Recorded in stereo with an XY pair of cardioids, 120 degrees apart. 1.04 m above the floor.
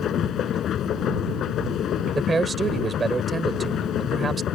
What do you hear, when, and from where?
0.0 s a machine running: 55° left
2.1 s a man speaking: 25° right